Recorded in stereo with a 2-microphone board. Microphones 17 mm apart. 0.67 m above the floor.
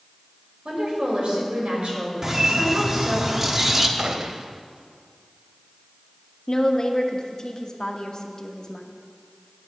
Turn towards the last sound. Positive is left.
turn(degrees=40)  # may be behind; listen again after turning